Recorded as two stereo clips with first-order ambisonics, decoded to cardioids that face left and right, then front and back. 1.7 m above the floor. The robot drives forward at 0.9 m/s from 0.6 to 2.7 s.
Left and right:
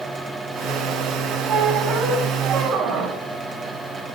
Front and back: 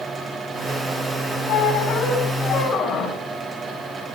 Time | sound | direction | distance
1.5 | a squeak | 30° right | 3 m